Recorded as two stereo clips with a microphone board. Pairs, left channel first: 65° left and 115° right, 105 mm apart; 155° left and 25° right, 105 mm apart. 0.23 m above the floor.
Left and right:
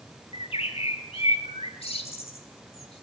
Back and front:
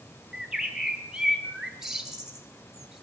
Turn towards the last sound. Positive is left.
turn(degrees=65)